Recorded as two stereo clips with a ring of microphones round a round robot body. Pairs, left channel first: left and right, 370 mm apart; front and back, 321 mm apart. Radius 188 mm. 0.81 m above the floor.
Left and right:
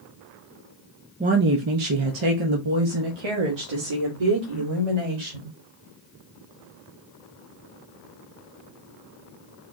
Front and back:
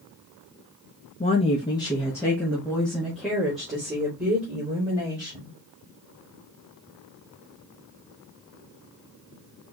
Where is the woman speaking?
40° right, 0.7 m; by 5.5 s 95° right, 3 m.